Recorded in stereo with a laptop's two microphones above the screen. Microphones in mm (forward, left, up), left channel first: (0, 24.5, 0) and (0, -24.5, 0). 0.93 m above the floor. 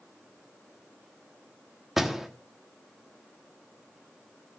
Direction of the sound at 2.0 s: 5° right (ahead or behind).